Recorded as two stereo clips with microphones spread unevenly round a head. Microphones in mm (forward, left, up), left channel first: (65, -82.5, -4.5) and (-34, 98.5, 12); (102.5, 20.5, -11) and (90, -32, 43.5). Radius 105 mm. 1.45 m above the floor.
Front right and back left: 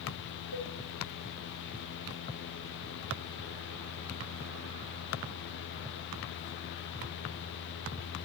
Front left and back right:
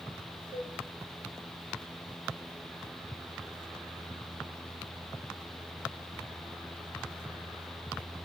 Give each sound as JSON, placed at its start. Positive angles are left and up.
{"t": 0.5, "sound": "a cowbell", "azimuth_deg": -95, "distance_m": 1.9}